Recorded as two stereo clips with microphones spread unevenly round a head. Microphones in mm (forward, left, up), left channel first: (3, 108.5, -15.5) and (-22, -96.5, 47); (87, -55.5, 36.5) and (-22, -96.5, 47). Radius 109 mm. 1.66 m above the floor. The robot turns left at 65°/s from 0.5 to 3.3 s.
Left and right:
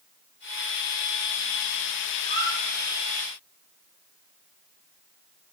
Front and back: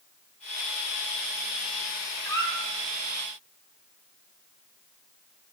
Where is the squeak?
45° right, 5.5 m; by 2.5 s 65° right, 5.5 m.